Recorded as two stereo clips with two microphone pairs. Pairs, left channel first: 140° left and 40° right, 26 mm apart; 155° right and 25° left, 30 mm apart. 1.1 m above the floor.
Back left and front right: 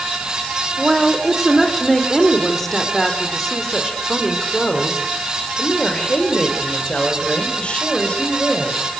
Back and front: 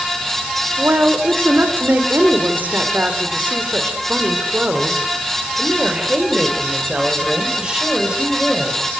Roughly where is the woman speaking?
Ahead left.